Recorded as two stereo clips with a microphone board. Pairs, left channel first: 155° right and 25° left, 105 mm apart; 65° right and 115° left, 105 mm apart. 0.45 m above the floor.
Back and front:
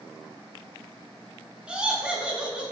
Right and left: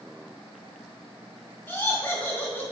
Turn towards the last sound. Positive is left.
turn(degrees=-40)